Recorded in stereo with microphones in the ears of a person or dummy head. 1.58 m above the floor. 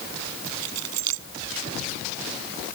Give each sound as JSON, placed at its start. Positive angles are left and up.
{"t": 0.5, "sound": "keys jangling", "side_deg": -75}